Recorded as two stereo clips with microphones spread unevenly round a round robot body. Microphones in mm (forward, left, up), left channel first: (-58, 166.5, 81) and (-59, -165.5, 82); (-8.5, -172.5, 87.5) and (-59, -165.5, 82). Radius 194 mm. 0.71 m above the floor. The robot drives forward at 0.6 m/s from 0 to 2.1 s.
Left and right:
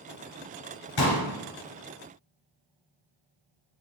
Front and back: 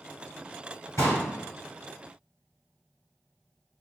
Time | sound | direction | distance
1.0 | a pop | 45° left | 1.8 m